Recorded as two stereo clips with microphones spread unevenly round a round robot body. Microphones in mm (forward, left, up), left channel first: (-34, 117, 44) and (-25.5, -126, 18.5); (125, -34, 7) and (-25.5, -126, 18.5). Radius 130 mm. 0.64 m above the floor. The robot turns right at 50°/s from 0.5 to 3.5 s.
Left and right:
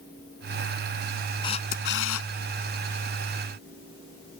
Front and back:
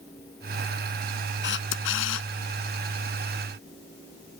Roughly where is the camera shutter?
Ahead.